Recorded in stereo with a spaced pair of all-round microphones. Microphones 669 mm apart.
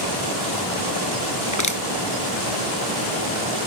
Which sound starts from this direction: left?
Crushing, at 1.5 s.